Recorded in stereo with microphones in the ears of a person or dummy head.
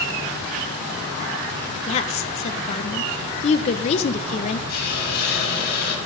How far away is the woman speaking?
About 1.0 m.